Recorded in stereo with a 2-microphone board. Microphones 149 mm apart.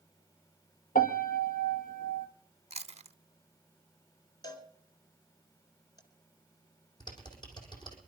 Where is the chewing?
45° right (ahead or behind), 0.5 m.